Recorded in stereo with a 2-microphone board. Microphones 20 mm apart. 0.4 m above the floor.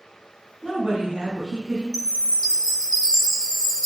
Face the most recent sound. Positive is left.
turn(degrees=45)  # may be behind; listen again after turning